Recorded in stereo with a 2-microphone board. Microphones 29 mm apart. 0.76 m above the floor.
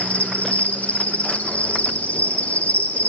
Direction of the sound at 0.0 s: 55° left (ahead or behind).